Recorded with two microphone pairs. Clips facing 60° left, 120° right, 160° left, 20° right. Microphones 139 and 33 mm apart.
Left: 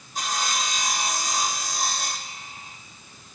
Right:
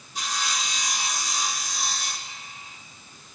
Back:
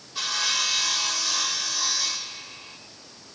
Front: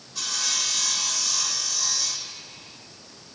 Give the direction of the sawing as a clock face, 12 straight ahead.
9 o'clock.